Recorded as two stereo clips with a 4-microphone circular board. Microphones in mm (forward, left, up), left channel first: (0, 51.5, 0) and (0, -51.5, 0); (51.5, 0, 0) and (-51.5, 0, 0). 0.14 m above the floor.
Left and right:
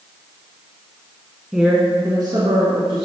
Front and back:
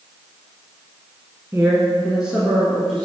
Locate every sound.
1.5 s a woman speaking: 170° right, 1.1 m; by 3.0 s 80° right, 2 m